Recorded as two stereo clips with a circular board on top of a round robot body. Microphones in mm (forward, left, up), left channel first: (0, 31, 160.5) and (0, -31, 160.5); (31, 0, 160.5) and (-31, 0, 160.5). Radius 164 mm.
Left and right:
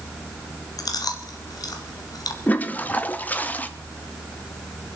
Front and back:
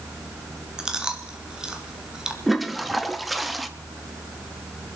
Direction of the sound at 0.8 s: 100° left.